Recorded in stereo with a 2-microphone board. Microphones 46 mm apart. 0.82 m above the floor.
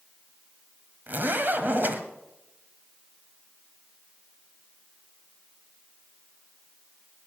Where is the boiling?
I don't hear boiling.